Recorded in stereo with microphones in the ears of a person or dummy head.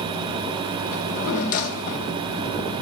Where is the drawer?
45° left (ahead or behind), 3 m.